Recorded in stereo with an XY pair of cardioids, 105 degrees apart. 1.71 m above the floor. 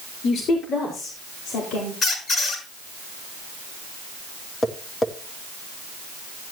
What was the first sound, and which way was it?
A woman speaking, 65° left.